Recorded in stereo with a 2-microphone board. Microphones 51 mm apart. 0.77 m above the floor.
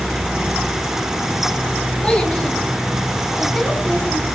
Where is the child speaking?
20° left (ahead or behind), 5.5 m; by 4.3 s 10° left (ahead or behind), 4.5 m.